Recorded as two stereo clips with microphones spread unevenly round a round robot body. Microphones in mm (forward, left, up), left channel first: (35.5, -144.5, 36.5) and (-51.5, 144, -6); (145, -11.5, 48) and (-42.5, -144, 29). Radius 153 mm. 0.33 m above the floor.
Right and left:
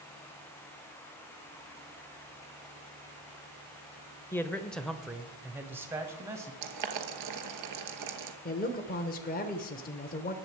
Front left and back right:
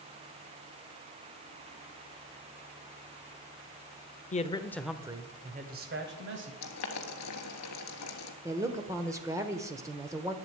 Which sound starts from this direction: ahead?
A man speaking, at 4.3 s.